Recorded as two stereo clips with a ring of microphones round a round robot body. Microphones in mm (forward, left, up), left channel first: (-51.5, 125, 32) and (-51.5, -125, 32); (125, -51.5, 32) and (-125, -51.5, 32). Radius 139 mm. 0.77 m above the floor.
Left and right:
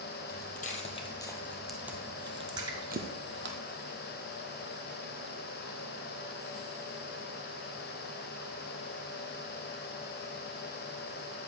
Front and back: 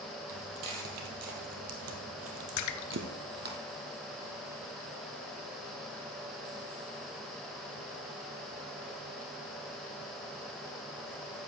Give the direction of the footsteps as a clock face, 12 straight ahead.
7 o'clock.